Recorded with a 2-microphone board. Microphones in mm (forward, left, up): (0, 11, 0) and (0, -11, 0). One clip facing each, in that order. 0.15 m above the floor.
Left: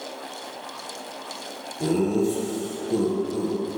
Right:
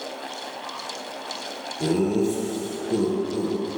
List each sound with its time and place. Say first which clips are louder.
1.8 s laughter: even; 15° right (ahead or behind), 2 m